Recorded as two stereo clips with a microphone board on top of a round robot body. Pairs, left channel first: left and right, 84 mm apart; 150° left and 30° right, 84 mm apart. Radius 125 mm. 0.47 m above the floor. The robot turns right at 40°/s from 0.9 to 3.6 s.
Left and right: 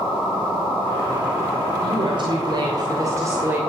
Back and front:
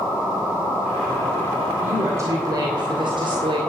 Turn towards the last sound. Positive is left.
turn(degrees=-25)